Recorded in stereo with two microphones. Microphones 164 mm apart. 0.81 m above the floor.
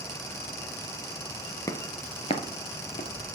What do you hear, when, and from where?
1.7 s footsteps: 20° left (ahead or behind), 0.8 m; by 3.3 s 50° left (ahead or behind), 1.5 m